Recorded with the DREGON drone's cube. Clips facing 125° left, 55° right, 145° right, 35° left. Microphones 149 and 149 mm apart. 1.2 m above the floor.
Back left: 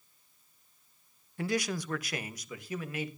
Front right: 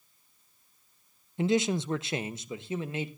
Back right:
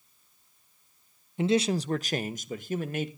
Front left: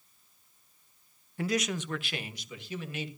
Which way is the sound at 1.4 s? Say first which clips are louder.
Front right 6 dB, back right 6 dB; 100° right.